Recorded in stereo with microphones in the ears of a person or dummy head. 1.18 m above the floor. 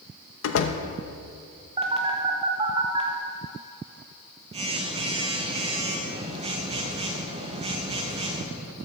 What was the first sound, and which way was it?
A door slam, 75° left (ahead or behind).